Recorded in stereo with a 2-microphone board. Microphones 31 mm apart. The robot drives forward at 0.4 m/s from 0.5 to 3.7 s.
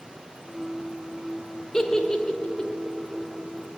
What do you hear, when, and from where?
1.7 s a giggle: 20° left (ahead or behind), 1.1 m; by 2.7 s 25° left (ahead or behind), 0.8 m